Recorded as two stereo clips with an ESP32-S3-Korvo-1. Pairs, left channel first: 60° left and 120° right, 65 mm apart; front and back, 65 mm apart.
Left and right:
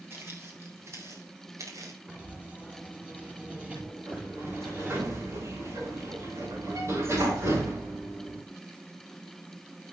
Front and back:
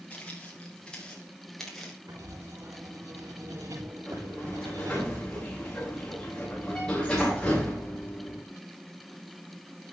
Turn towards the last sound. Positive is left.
turn(degrees=-80)